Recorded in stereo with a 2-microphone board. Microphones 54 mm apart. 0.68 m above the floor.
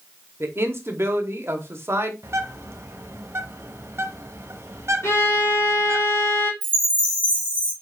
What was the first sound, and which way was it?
A man speaking, 50° right (ahead or behind).